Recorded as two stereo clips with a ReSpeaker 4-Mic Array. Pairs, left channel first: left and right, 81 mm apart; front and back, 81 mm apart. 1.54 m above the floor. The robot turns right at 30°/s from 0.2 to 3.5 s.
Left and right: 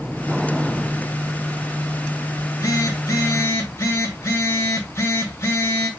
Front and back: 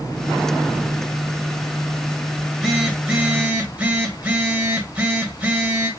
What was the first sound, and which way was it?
A phone buzzing, 85° left.